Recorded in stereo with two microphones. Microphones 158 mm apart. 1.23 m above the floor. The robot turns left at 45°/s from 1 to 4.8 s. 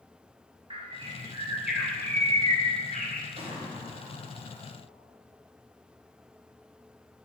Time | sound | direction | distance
0.7 | a bird | 145° right | 0.8 m
3.4 | a gunshot | 135° right | 1.1 m